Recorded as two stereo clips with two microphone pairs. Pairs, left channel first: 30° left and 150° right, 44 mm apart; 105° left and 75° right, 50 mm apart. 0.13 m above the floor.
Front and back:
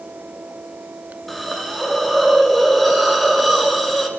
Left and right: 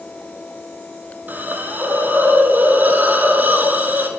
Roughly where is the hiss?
Ahead right.